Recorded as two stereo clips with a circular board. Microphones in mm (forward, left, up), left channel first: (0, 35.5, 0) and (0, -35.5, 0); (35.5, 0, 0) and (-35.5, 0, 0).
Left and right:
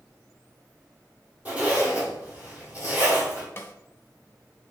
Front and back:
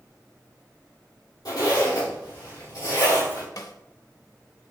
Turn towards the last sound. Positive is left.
turn(degrees=30)